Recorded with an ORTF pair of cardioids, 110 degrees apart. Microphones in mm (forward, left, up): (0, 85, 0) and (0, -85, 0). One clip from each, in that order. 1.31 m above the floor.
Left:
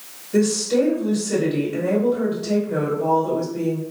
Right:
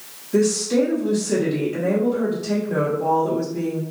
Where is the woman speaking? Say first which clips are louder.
Even; 20° right, 1.0 m.